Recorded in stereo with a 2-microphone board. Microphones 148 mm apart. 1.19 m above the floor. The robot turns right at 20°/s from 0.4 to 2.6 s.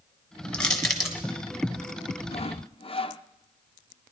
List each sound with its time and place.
0.5 s crushing: 10° left (ahead or behind), 1.3 m; by 1.2 s 5° right (ahead or behind), 1.3 m
2.3 s sawing: 45° left (ahead or behind), 0.5 m; by 3.2 s 40° left (ahead or behind), 0.5 m